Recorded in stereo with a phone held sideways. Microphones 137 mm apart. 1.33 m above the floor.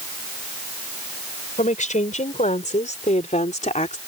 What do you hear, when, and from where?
1.6 s a woman speaking: 65° left (ahead or behind); by 4.0 s 60° left (ahead or behind)